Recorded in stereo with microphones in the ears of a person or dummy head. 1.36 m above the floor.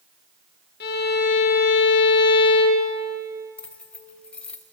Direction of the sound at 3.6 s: 5° left (ahead or behind).